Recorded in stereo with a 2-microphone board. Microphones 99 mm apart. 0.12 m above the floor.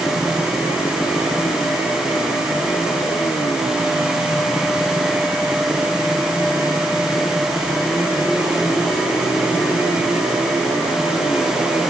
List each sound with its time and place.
Only background noise.